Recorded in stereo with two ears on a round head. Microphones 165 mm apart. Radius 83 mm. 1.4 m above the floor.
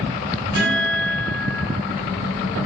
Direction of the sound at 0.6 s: 50° right (ahead or behind).